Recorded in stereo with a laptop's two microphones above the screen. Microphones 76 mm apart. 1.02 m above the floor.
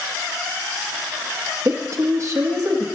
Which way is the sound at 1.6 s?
45° right (ahead or behind).